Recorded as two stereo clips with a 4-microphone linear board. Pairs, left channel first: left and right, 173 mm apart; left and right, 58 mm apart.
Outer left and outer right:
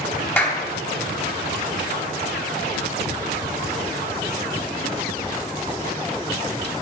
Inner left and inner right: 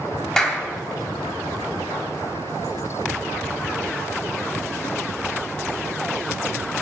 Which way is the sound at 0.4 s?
10° left (ahead or behind).